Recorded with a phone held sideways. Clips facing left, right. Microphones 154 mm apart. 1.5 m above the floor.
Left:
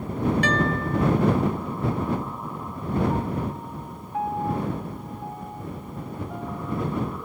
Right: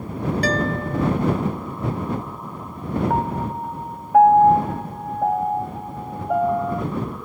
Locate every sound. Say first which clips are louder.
0.4 s a guitar: right 2 dB; 35° right (ahead or behind)
3.1 s a piano: right 4 dB; 75° right (ahead or behind)